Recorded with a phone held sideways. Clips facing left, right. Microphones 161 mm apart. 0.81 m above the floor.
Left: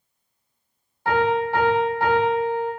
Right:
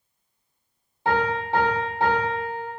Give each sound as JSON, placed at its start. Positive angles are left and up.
{"t": 1.1, "sound": "a piano", "side_deg": -25, "distance_m": 1.0}